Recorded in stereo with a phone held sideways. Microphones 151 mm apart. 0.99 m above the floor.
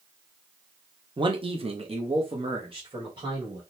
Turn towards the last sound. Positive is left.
turn(degrees=-30)  # may be behind; listen again after turning